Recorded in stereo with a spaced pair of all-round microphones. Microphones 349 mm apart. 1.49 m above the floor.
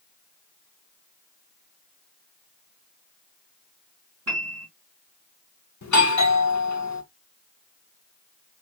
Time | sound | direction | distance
4.3 | a piano | 50° right (ahead or behind) | 1.9 m
5.8 | a doorbell | 55° left (ahead or behind) | 0.9 m